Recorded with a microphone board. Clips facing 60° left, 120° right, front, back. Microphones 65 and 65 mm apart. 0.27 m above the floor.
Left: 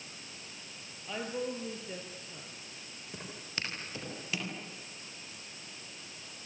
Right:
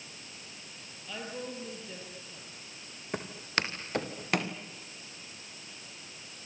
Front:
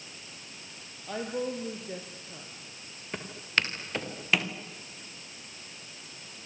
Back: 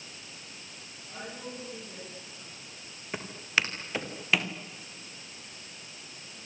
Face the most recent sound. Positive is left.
turn(degrees=-90)